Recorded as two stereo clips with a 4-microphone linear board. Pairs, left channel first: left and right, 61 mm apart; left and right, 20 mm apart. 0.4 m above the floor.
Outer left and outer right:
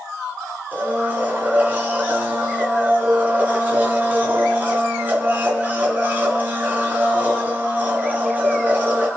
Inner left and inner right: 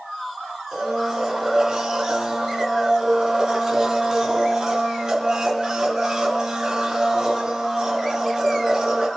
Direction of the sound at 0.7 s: 30° right (ahead or behind).